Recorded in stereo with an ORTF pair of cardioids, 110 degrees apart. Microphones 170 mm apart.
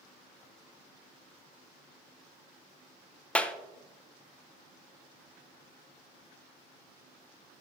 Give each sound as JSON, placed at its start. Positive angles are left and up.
{"t": 3.4, "sound": "a clap", "azimuth_deg": 5, "distance_m": 0.8}